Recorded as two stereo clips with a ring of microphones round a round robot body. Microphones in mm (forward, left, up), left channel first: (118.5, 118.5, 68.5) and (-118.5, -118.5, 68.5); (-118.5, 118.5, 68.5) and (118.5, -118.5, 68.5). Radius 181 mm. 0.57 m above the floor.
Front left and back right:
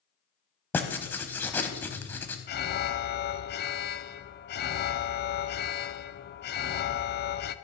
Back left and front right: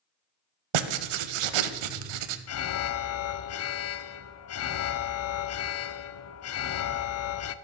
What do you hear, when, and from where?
0.7 s writing: 40° right, 0.7 m
2.5 s an alarm: 100° left, 0.6 m